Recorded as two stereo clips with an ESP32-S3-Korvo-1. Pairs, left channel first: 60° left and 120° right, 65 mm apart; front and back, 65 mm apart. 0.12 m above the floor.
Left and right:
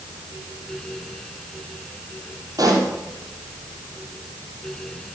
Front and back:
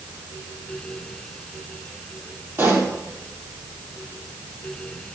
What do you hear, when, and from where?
2.6 s a pop: 130° right, 3.5 m